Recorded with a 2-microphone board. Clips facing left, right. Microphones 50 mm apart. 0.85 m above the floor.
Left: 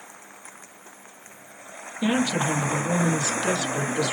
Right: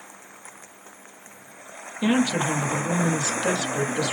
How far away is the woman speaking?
About 1.3 m.